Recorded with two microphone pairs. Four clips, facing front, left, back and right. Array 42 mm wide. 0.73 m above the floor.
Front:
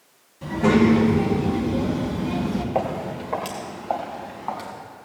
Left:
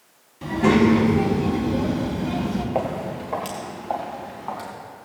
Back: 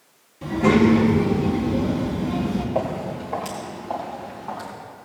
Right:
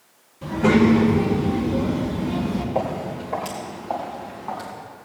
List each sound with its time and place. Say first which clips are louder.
0.4 s a child speaking: even, back 1 dB; 100° left, 3 m; by 2.6 s 65° left, 2.5 m
2.8 s footsteps: even, even; 50° left, 2.5 m; by 4.7 s 30° left, 4 m